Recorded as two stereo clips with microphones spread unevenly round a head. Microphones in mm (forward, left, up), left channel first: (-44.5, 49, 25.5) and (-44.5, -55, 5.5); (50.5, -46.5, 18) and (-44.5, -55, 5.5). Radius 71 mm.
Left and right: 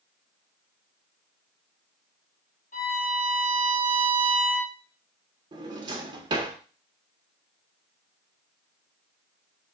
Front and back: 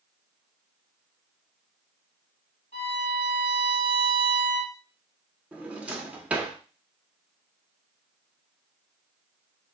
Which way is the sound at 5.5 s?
95° right.